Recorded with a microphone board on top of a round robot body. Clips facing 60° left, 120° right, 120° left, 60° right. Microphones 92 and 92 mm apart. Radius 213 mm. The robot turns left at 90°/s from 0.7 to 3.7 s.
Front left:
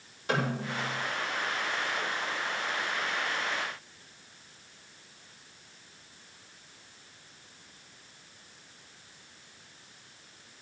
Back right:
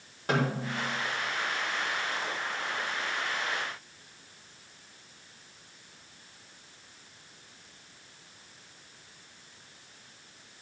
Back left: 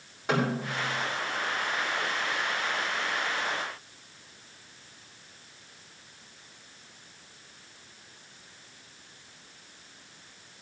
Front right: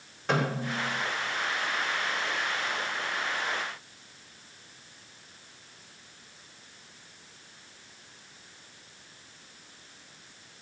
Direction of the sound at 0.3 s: 160° right.